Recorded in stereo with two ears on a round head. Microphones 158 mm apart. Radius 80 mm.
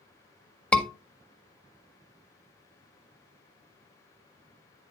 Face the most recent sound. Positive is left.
turn(degrees=5)  # may be behind; listen again after turning